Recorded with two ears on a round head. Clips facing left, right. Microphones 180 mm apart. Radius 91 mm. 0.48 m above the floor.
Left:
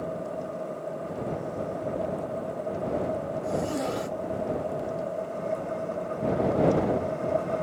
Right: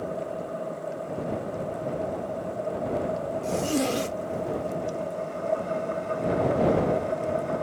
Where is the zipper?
35° right (ahead or behind).